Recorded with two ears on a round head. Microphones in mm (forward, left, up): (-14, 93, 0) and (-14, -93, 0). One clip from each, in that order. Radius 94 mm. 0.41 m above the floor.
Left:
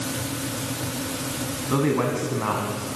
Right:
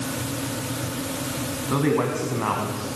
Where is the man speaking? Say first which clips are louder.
Even; 15° right (ahead or behind), 4 m.